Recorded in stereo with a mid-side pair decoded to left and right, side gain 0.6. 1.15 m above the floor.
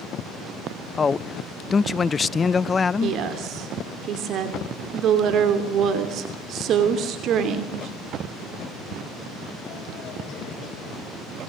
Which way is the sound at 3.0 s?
55° right.